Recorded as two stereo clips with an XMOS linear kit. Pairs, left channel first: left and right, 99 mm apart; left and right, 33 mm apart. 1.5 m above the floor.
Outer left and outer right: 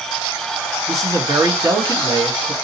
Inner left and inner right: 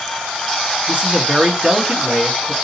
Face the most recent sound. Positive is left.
turn(degrees=-35)  # may be behind; listen again after turning